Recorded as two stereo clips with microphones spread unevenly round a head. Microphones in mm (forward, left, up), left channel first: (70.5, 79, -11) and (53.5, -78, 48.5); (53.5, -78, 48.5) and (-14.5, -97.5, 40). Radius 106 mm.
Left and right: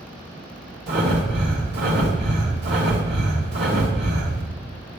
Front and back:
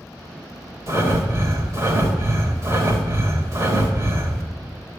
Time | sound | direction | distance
0.9 | breathing | 115° right | 3 m